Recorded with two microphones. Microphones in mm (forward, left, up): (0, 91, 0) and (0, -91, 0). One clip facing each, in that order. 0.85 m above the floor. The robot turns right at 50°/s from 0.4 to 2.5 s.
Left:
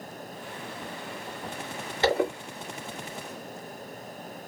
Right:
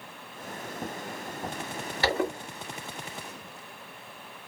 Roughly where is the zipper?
Left.